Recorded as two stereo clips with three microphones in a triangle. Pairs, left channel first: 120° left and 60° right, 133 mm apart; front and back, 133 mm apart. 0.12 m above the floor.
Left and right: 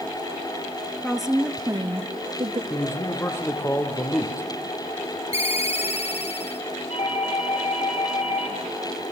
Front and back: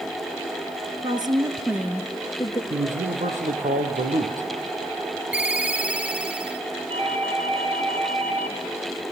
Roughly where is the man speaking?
Behind.